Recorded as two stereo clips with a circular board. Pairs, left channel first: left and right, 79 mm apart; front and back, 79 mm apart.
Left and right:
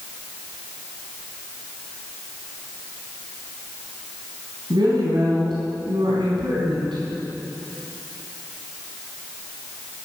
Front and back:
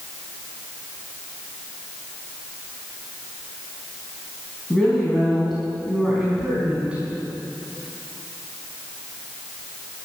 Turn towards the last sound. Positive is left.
turn(degrees=-105)